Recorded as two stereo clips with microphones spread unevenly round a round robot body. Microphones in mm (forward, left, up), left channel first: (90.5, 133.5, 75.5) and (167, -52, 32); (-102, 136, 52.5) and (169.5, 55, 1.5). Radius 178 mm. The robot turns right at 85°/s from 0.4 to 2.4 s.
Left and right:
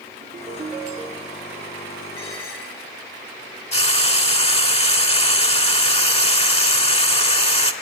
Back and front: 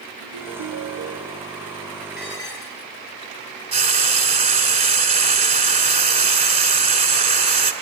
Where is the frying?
50° left, 2.5 m.